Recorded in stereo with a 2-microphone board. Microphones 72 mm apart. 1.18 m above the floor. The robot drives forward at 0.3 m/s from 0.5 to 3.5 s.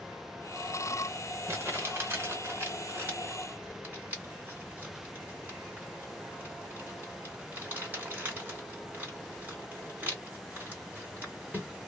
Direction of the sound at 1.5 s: 35° right (ahead or behind).